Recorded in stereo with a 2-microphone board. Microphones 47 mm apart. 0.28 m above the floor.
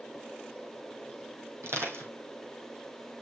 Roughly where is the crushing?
Right.